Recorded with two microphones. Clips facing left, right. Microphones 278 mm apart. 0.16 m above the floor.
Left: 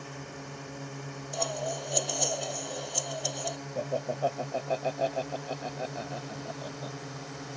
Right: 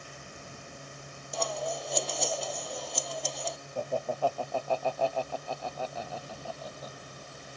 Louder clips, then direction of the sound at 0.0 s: Left 7 dB; 70° left (ahead or behind).